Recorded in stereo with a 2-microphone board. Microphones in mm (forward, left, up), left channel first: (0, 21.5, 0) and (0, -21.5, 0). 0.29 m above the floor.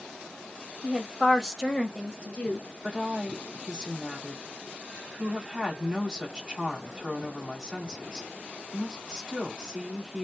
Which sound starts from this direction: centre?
A woman speaking, at 2.8 s.